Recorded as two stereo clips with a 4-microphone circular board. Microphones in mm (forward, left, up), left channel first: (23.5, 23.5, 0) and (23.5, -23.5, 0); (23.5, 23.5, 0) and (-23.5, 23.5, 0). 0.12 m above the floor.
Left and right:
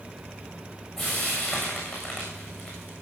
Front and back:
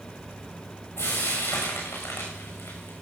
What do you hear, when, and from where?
1.0 s frying: 5° left, 7 m